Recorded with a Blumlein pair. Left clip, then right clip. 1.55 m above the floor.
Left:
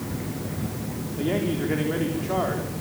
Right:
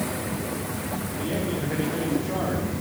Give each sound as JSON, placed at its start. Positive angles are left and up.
{"t": 1.2, "sound": "a man speaking", "azimuth_deg": 20, "distance_m": 4.0}